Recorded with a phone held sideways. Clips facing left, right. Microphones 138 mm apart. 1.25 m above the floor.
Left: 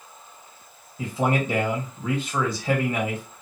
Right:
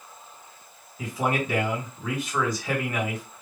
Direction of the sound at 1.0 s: 30° left (ahead or behind).